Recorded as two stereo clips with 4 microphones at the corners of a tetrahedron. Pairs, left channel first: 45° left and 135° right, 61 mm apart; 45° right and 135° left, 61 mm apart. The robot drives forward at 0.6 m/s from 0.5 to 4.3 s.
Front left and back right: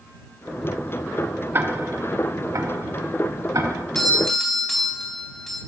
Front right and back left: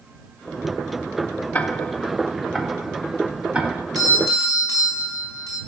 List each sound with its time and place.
1.5 s ticking: 100° right, 0.9 m; by 3.8 s 155° right, 1.7 m
4.0 s a doorbell: 130° left, 3.5 m